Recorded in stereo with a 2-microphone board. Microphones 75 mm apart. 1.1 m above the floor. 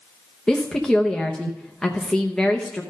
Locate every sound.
0.5 s a woman speaking: 10° left (ahead or behind), 0.8 m